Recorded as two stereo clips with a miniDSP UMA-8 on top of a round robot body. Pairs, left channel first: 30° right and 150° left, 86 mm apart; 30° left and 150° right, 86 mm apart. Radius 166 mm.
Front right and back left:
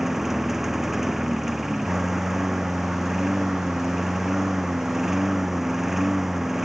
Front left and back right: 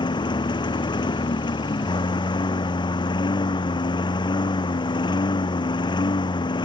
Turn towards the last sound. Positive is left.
turn(degrees=65)